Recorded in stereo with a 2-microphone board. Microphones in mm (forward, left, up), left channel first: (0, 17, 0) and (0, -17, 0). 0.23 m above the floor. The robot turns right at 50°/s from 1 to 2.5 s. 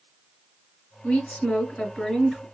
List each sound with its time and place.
1.0 s a woman speaking: 120° left, 2 m; by 2.4 s 170° right, 2 m